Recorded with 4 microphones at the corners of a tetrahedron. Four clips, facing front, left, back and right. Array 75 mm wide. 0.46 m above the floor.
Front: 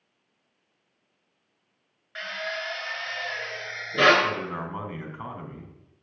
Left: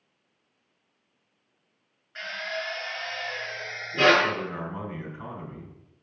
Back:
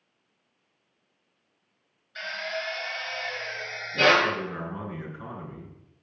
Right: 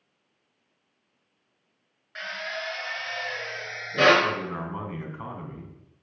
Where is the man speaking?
30° right, 4 m.